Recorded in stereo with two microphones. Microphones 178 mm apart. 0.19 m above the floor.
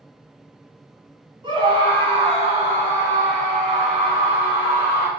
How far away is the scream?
About 1.7 m.